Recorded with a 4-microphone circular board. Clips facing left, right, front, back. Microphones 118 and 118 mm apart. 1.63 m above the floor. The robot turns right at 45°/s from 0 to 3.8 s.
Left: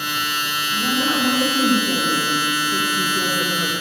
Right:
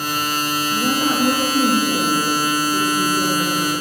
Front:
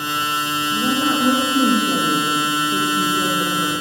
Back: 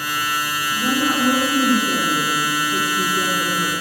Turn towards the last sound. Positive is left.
turn(degrees=105)